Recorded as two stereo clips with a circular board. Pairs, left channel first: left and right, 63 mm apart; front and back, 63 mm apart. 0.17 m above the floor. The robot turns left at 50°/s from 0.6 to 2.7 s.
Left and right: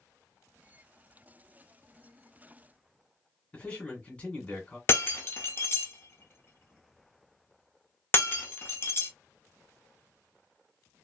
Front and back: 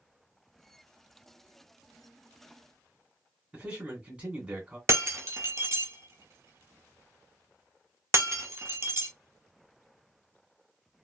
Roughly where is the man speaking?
Behind left.